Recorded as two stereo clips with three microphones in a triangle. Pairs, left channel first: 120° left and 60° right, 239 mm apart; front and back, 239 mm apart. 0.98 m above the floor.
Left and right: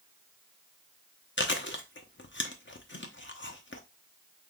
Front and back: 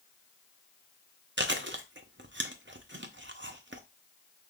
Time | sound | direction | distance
1.4 | chewing | 150° left | 0.6 m